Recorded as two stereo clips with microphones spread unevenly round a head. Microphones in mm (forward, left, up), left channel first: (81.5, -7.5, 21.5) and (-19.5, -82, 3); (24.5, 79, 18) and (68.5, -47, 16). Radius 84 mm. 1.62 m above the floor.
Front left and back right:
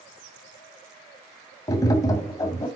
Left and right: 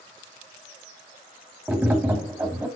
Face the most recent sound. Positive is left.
turn(degrees=0)